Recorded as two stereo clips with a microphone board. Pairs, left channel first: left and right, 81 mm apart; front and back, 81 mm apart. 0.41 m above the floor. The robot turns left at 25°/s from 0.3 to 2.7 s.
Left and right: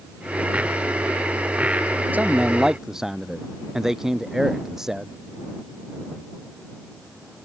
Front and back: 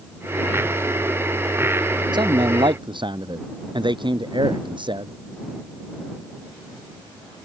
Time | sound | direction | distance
2.1 | a man speaking | 160° right | ?